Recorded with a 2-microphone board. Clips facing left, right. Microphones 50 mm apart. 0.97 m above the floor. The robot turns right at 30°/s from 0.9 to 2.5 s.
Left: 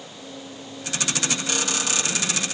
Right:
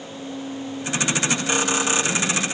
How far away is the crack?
I don't hear a crack.